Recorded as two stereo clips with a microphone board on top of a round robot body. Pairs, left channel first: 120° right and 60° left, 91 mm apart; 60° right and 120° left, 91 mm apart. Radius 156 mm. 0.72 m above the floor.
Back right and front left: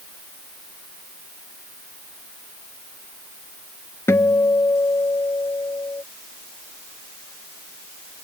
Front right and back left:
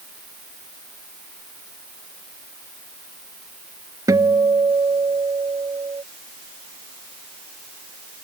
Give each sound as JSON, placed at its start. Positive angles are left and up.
{"t": 4.1, "sound": "a guitar", "azimuth_deg": 175}